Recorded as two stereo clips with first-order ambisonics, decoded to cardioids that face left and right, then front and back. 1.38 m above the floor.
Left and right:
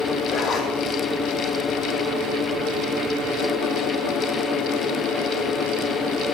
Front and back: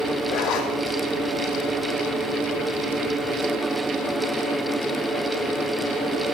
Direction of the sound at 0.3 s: 35° left.